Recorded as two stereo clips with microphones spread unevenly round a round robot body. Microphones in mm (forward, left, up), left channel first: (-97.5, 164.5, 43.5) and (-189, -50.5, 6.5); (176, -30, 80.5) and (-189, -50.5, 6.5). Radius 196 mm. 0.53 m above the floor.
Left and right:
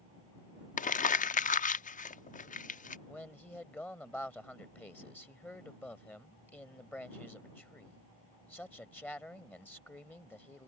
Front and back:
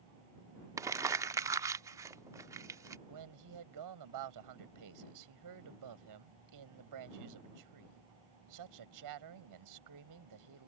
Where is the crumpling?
120° left.